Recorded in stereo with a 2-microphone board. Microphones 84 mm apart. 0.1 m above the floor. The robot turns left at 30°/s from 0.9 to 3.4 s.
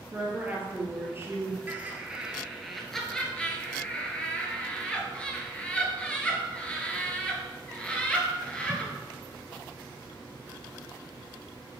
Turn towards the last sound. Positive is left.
turn(degrees=15)  # may be behind; listen again after turning